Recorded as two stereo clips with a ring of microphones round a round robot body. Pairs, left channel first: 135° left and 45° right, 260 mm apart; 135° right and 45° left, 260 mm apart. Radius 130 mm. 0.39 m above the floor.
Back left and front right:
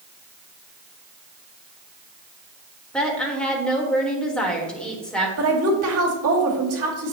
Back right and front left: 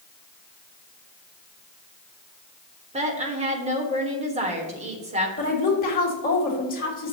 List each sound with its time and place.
2.9 s a woman speaking: 55° left, 1.2 m
5.4 s a woman speaking: 80° right, 2 m